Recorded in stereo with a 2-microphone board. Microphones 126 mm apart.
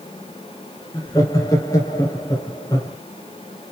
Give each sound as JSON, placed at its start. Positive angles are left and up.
{"t": 0.9, "sound": "laughter", "side_deg": 25, "distance_m": 2.5}